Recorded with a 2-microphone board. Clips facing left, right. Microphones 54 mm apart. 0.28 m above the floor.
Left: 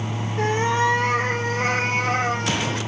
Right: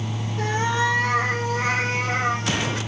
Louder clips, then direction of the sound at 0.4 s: Left 2 dB; 40° left (ahead or behind).